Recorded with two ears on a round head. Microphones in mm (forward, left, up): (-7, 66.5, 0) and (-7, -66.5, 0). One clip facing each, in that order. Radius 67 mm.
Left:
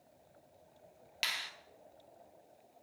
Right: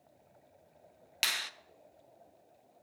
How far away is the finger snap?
About 0.7 m.